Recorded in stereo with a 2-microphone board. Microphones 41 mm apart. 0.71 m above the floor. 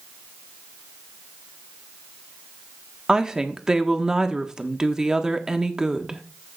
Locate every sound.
3.1 s a woman speaking: 15° right (ahead or behind), 1.3 m